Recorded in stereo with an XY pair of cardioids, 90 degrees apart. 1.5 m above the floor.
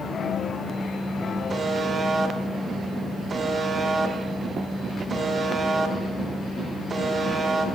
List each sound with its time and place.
1.5 s a buzzer: 50° right, 1.4 m